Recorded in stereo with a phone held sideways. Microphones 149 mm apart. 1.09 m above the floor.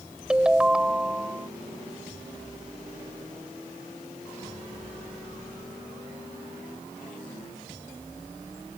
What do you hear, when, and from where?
0.3 s a ringtone: 5° right (ahead or behind)